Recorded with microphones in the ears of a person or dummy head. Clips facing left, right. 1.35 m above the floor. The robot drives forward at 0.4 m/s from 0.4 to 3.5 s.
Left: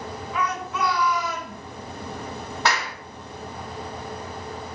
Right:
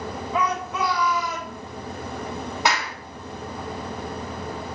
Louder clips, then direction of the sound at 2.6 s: Even; 20° right (ahead or behind).